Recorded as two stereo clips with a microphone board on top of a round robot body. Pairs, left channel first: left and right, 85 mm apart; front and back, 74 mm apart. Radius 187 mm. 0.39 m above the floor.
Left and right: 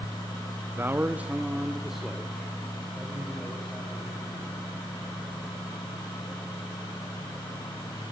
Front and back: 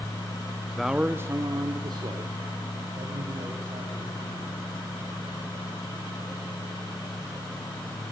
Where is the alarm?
No alarm in this recording.